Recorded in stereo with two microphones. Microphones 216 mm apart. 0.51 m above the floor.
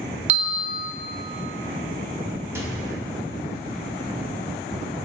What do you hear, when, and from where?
0.3 s a bell: 35° right (ahead or behind), 0.6 m
2.5 s a microwave: 10° right (ahead or behind), 0.8 m